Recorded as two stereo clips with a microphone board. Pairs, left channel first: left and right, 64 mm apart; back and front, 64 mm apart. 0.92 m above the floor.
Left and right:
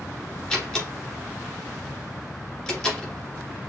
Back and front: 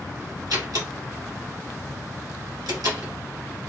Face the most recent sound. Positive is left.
turn(degrees=10)